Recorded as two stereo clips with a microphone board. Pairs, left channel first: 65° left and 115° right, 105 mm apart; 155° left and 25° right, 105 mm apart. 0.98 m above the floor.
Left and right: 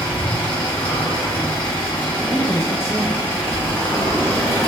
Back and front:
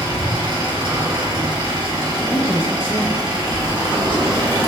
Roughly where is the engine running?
Ahead.